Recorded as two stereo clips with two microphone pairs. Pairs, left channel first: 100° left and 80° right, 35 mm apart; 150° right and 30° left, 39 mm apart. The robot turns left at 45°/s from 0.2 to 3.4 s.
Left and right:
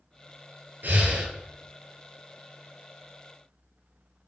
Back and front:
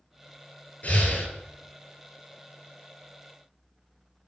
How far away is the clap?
I don't hear a clap.